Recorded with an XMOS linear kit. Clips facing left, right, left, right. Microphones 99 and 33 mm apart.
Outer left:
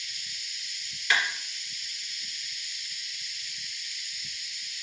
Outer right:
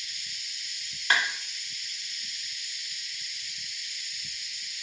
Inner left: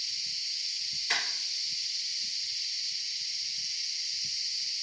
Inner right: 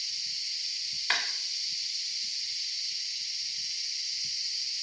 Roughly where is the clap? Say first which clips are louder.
Outer right 1 dB, inner right 2 dB; right.